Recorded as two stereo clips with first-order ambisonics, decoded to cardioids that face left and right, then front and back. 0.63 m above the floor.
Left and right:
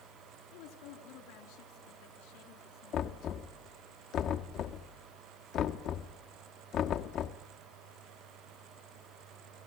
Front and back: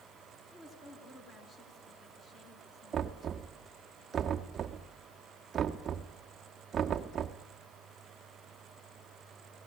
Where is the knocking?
120° left, 1.1 m.